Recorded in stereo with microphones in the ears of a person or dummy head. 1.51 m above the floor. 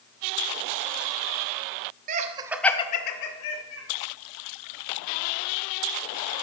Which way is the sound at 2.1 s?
45° right (ahead or behind).